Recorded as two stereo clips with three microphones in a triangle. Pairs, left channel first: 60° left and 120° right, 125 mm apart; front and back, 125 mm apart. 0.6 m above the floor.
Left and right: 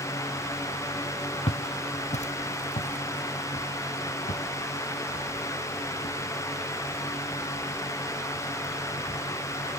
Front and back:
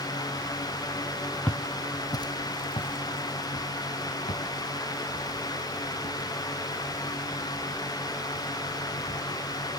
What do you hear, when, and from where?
1.5 s footsteps: 80° left, 0.8 m; by 9.6 s 35° left, 7.5 m